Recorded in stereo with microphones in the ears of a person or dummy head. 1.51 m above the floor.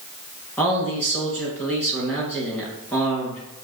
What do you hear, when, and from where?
0.6 s a man speaking: 15° left (ahead or behind), 1.4 m